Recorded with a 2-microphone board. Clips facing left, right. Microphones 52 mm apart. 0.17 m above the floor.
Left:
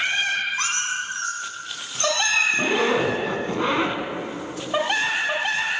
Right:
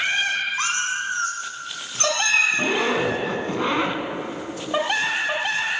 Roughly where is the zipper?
Centre.